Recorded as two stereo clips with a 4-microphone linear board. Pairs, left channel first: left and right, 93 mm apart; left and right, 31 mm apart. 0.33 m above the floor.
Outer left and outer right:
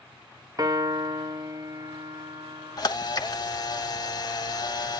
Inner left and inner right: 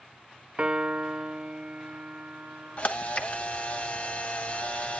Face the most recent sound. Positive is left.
turn(degrees=45)  # may be behind; listen again after turning